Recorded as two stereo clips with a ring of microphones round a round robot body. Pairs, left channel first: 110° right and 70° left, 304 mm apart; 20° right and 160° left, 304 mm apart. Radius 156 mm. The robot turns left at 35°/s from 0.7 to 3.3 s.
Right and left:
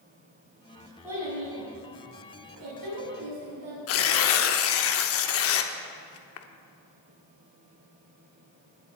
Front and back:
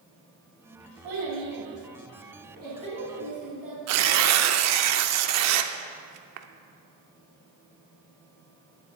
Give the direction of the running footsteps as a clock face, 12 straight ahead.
No running footsteps in this recording.